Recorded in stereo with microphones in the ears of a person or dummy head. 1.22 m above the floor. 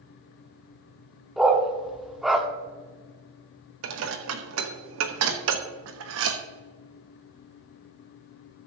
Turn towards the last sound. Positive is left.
turn(degrees=-80)